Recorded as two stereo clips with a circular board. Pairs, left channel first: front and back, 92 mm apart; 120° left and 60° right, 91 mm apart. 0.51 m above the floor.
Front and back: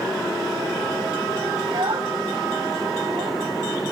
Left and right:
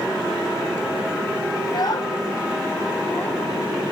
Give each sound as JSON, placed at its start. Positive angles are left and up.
{"t": 1.6, "sound": "a child speaking", "azimuth_deg": 155, "distance_m": 2.5}